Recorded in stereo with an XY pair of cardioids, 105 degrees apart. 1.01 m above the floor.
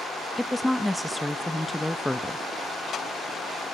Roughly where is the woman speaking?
Ahead.